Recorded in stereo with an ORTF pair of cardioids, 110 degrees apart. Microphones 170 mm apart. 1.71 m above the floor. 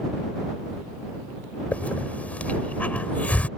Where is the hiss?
10° left.